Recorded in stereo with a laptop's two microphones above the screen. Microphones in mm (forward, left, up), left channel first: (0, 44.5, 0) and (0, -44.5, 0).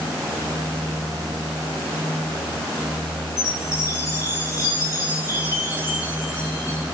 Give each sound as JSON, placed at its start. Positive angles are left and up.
{"t": 3.4, "sound": "a chime", "side_deg": 35, "distance_m": 7.0}